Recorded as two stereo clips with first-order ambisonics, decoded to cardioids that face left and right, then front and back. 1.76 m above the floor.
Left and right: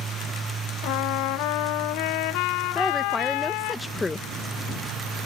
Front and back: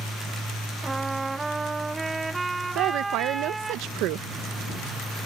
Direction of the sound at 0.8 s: 100° left.